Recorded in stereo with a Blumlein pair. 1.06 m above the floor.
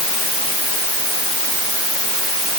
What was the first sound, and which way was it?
Only background noise.